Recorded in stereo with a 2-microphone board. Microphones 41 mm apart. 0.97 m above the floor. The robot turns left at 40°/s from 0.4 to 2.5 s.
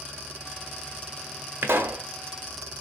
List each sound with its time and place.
1.6 s a pop: 60° right (ahead or behind), 0.8 m; by 2.0 s 70° right (ahead or behind), 0.8 m